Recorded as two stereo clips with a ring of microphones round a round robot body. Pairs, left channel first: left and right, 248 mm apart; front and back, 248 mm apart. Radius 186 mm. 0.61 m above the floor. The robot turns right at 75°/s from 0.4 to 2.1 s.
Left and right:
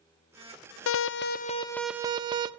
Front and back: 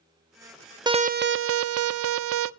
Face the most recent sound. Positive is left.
turn(degrees=-160)